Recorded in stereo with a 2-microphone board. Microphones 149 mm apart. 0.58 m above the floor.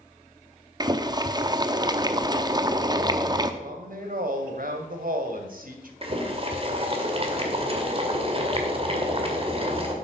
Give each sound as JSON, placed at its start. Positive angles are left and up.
{"t": 0.8, "sound": "boiling", "side_deg": -25, "distance_m": 0.8}
{"t": 3.6, "sound": "a woman speaking", "side_deg": -70, "distance_m": 2.5}
{"t": 6.0, "sound": "boiling", "side_deg": -40, "distance_m": 2.0}